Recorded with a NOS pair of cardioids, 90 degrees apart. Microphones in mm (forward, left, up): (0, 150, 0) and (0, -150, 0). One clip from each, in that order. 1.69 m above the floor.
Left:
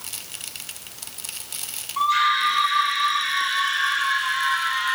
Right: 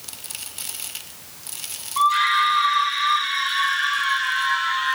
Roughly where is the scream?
Ahead right.